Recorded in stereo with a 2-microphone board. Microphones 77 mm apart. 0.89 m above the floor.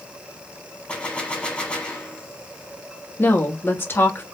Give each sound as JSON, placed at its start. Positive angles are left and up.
{"t": 0.9, "sound": "a gunshot", "side_deg": 15, "distance_m": 1.3}
{"t": 3.2, "sound": "a woman speaking", "side_deg": 30, "distance_m": 1.3}